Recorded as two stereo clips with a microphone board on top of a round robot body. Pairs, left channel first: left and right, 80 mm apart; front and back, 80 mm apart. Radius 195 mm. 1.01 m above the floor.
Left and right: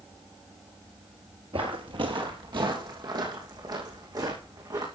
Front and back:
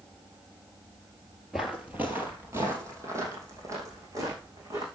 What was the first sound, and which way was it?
Footsteps, 95° right.